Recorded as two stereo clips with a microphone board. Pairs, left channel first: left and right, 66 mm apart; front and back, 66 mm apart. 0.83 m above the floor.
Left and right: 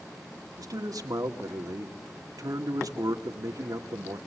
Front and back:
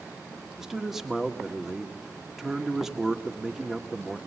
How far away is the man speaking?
About 2 m.